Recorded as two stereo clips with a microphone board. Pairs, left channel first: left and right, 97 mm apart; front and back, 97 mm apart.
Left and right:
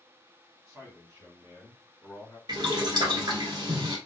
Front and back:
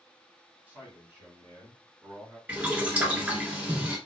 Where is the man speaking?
120° right, 1.9 m; by 2.4 s 170° left, 1.7 m.